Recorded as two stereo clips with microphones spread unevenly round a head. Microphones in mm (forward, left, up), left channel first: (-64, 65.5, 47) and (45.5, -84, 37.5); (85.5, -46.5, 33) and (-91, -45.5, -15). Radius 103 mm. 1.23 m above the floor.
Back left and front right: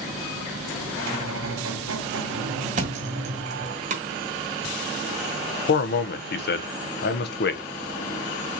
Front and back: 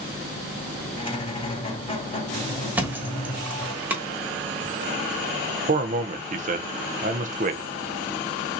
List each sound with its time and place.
1.0 s a squeak: 60° right, 3 m
2.8 s a thud: 85° right, 1.1 m
5.7 s a man speaking: 150° left, 0.6 m